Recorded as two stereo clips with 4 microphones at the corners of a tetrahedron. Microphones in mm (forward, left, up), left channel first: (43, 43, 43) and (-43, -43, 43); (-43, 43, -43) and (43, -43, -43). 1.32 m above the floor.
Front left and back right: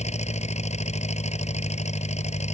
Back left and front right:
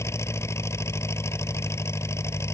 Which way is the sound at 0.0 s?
65° left.